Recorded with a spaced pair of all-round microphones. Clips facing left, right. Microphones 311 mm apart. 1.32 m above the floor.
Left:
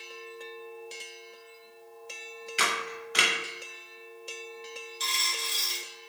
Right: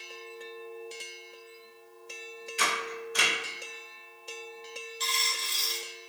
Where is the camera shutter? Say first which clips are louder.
Right 1 dB; 75° left (ahead or behind), 0.5 m.